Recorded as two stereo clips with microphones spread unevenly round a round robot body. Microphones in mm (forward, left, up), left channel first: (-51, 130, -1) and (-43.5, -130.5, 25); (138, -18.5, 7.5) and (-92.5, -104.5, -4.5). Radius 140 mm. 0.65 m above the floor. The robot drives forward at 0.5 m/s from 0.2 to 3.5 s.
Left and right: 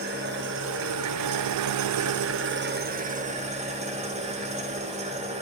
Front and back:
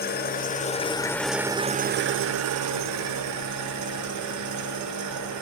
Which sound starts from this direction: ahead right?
An engine running, at 0.0 s.